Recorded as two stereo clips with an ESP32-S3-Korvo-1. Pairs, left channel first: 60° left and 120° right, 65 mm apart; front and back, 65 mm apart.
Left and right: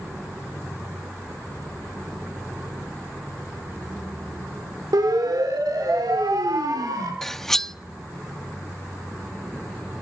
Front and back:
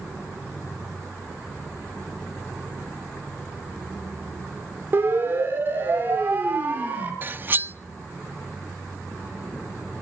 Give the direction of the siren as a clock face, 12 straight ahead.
4 o'clock.